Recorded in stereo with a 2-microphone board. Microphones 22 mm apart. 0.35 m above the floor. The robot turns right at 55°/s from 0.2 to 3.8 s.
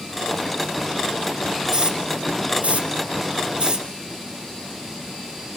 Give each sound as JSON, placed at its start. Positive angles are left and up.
{"t": 1.7, "sound": "a hiss", "side_deg": -35, "distance_m": 3.0}